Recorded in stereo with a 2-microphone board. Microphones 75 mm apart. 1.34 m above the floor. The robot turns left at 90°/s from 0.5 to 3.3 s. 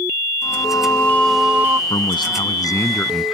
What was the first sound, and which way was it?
Singing, 80° left.